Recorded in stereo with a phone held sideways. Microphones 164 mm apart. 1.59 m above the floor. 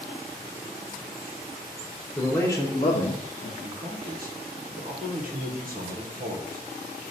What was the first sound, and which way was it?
A man speaking, 10° left (ahead or behind).